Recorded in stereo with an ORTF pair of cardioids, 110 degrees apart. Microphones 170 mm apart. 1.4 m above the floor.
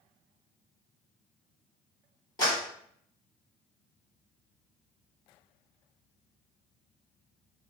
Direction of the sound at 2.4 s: 25° left.